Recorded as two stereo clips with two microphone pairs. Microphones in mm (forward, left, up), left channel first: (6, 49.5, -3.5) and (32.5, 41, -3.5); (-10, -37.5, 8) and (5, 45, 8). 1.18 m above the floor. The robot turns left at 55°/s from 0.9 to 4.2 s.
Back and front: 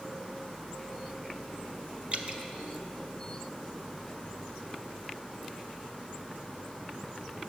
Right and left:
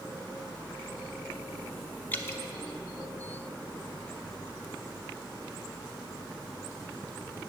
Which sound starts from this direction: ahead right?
Dripping, at 2.1 s.